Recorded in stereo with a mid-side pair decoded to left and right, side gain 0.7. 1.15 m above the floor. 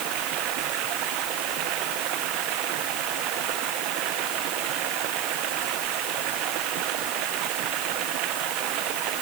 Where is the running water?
60° right.